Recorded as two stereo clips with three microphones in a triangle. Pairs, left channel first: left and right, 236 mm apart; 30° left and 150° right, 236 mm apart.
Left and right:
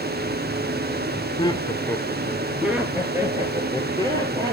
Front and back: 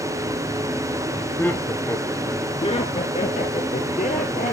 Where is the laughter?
100° left, 1.1 m; by 4.5 s 25° right, 2 m.